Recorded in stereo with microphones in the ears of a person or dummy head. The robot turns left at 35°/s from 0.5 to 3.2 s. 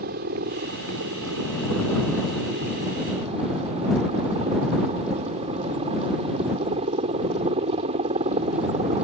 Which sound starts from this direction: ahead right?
A helicopter, at 0.0 s.